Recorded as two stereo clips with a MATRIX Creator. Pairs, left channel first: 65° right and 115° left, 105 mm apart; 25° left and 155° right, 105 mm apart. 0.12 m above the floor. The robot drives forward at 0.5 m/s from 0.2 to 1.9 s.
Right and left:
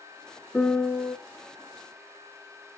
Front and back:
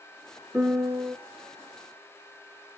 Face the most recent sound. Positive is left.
turn(degrees=-165)